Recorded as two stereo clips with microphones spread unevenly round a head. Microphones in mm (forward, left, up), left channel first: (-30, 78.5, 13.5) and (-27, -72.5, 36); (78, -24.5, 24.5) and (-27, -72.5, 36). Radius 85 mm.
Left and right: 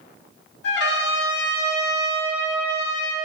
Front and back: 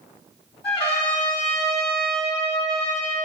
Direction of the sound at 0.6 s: 80° left.